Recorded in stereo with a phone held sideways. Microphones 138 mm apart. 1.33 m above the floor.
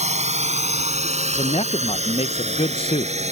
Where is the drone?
55° right (ahead or behind); by 3.3 s 50° right (ahead or behind).